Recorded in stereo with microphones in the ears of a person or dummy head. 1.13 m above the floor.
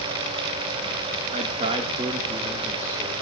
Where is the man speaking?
40° right (ahead or behind), 1.2 m; by 3.1 s 15° right (ahead or behind), 3 m.